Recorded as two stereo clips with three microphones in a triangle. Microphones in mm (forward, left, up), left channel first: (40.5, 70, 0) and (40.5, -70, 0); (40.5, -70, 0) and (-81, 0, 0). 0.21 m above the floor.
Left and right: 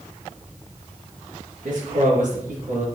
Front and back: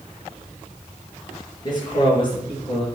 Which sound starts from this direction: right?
A man speaking, at 1.6 s.